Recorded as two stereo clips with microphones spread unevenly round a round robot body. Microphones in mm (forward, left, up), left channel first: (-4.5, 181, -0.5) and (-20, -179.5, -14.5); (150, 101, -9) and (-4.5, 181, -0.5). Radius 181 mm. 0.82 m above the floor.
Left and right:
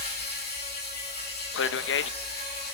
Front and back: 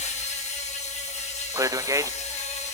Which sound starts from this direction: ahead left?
An insect, at 0.0 s.